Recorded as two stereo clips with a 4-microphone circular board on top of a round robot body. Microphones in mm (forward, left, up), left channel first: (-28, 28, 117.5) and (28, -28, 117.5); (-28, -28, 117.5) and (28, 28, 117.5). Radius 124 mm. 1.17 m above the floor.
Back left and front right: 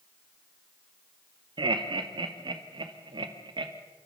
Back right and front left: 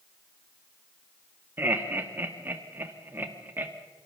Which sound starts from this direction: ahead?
Laughter, at 1.6 s.